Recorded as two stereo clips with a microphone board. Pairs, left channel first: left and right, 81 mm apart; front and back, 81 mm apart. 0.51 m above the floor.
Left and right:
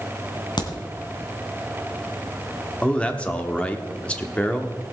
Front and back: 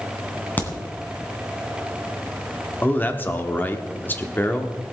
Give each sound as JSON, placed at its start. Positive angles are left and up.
{"t": 0.6, "sound": "a crack", "azimuth_deg": 70, "distance_m": 2.0}
{"t": 2.8, "sound": "a man speaking", "azimuth_deg": 35, "distance_m": 1.0}